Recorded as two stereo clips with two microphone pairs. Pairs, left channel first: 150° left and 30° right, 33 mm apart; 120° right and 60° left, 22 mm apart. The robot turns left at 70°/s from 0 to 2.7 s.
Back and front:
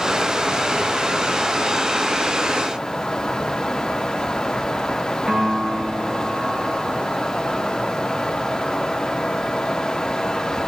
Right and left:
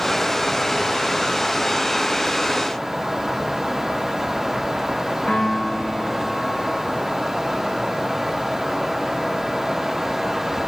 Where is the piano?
90° right, 7 m.